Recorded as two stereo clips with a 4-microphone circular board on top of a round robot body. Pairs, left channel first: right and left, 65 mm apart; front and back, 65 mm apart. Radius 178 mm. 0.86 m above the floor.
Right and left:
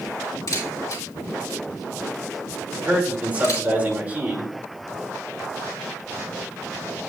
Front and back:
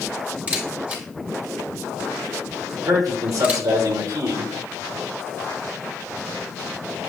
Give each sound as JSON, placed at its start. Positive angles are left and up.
{"t": 0.5, "sound": "a camera shutter", "azimuth_deg": -115, "distance_m": 3.0}
{"t": 2.8, "sound": "a man speaking", "azimuth_deg": 155, "distance_m": 3.0}